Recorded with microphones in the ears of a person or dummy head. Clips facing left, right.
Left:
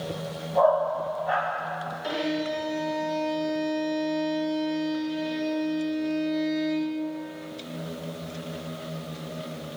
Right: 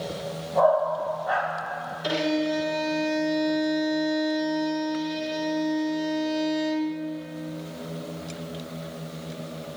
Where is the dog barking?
Centre (ahead or behind), 2.0 m.